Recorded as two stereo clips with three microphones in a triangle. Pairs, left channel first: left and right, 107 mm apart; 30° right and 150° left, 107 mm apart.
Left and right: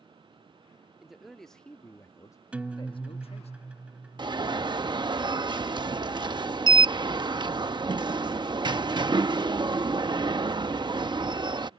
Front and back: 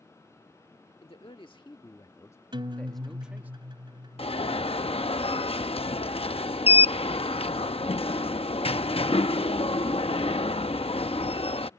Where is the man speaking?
5° right; by 3.5 s 80° left.